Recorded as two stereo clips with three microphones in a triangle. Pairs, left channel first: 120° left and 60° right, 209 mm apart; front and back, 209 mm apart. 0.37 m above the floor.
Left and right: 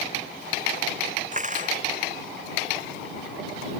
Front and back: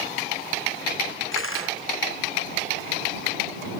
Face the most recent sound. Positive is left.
turn(degrees=-5)